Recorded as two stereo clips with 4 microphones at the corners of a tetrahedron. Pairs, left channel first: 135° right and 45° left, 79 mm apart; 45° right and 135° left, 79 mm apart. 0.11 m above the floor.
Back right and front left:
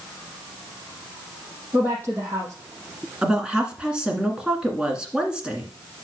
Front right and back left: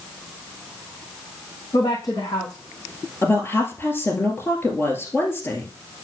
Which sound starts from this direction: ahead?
A woman speaking, at 1.7 s.